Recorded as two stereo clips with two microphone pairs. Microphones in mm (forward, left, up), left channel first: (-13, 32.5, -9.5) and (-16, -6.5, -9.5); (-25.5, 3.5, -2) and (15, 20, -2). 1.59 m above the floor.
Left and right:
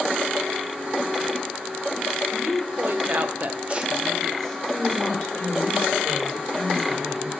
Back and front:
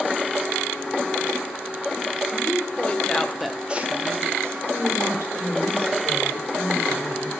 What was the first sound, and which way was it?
A woman speaking, 110° right.